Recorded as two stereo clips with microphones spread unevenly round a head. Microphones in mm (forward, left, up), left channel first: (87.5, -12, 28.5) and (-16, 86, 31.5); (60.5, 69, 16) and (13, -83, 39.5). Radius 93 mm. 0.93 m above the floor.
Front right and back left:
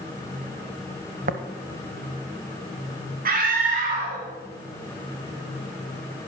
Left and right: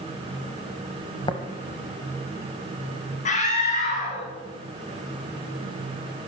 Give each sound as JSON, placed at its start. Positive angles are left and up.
{"t": 1.3, "sound": "tapping", "azimuth_deg": 140, "distance_m": 1.0}
{"t": 3.2, "sound": "a scream", "azimuth_deg": 120, "distance_m": 2.0}